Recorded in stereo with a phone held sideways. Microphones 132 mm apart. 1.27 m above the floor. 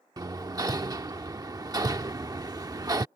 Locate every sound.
0.2 s hammering: 30° right (ahead or behind)